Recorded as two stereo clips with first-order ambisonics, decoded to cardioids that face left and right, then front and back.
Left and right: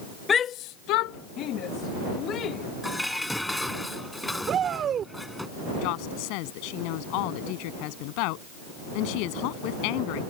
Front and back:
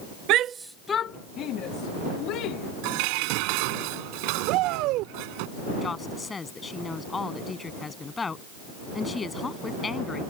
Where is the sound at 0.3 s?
160° left; by 2.7 s 35° left.